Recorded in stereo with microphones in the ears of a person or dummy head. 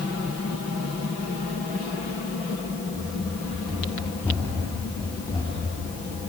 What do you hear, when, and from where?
2.9 s running footsteps: 15° right (ahead or behind), 3.5 m; by 6.2 s 30° left (ahead or behind), 5.5 m